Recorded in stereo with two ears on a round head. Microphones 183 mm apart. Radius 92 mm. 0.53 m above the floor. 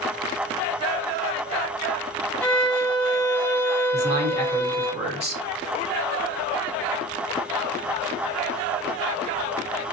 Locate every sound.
2.4 s a violin: 5° left (ahead or behind), 0.7 m
3.9 s a man speaking: 30° right (ahead or behind), 1.3 m